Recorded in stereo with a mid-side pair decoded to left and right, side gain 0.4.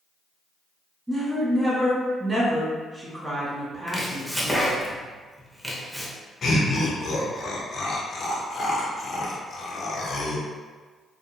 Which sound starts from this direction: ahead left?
Laughter, at 6.4 s.